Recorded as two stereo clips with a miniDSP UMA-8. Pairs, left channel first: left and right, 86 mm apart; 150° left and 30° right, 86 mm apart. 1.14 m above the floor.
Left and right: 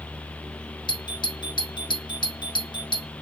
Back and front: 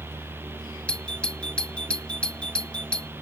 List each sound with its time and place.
0.9 s a doorbell: 70° left